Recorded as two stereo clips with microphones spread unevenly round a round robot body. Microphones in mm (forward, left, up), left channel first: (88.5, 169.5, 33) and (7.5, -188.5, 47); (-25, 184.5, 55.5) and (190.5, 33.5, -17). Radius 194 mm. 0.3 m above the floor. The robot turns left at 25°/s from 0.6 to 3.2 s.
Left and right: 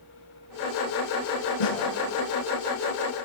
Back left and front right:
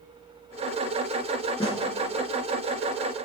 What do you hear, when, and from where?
1.6 s a snare drum: 75° left, 5 m; by 1.9 s 65° left, 5 m